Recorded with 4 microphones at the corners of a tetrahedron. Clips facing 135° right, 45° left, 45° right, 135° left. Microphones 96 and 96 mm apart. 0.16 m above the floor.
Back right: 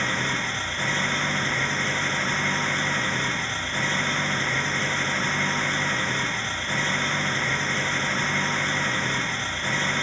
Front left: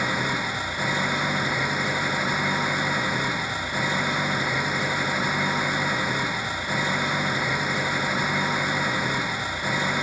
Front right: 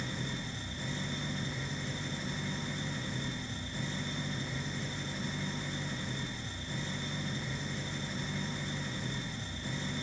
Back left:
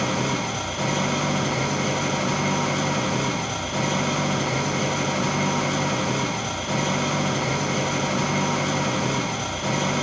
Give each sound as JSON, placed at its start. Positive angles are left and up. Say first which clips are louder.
{"t": 0.0, "sound": "an engine running", "louder": "front left 1 dB, back left 15 dB", "azimuth_deg": 125}